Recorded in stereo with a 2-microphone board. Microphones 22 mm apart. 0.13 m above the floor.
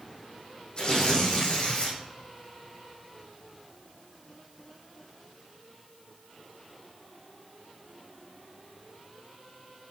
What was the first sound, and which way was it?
Tearing paper, 40° left (ahead or behind).